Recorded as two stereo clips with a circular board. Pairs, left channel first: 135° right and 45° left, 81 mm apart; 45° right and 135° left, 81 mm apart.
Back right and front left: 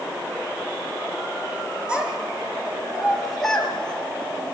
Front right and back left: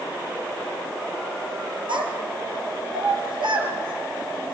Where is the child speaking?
125° left, 5 m; by 4.5 s 155° left, 4.5 m.